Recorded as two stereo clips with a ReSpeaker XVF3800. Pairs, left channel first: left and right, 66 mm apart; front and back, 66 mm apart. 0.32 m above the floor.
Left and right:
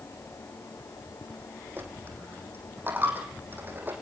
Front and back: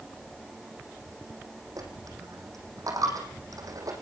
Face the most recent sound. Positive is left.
turn(degrees=-150)